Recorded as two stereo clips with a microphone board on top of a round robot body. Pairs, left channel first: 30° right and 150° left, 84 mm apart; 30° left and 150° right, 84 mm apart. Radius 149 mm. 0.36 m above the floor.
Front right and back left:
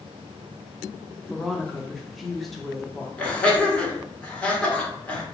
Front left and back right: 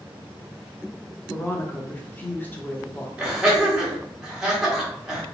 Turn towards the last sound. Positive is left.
turn(degrees=-80)